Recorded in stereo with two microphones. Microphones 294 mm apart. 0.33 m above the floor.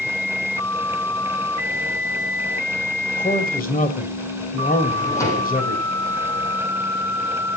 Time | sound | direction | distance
3.2 | a man speaking | 30° left (ahead or behind) | 1.9 m
4.9 | a drawer | 10° left (ahead or behind) | 5 m